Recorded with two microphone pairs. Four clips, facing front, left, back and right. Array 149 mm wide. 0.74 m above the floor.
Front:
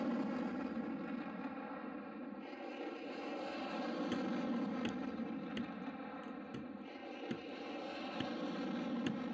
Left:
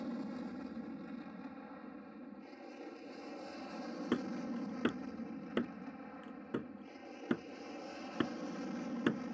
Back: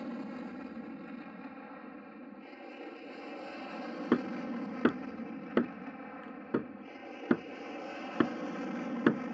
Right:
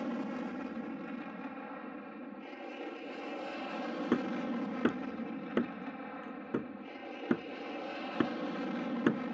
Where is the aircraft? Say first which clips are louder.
Right 5 dB, front 2 dB; 65° right; by 9.3 s 120° right.